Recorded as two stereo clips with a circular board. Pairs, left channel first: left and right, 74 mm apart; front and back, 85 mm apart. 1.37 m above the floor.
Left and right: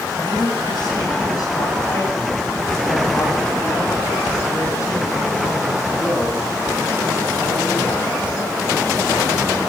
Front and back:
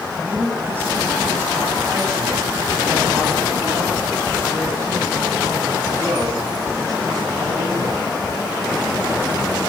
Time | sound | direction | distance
0.2 | a man speaking | 110° left | 9 m